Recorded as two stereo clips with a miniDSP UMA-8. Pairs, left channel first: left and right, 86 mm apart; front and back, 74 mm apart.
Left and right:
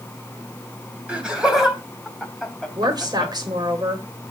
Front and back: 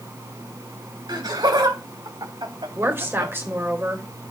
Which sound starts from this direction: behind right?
A woman speaking, at 2.8 s.